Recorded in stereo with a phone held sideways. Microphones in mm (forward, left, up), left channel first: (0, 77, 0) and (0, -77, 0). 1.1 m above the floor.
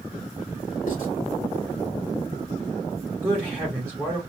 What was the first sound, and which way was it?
Writing, 60° left (ahead or behind).